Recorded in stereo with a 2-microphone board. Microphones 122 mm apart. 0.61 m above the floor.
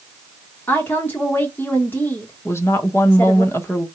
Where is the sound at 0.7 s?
15° left (ahead or behind), 1.0 m.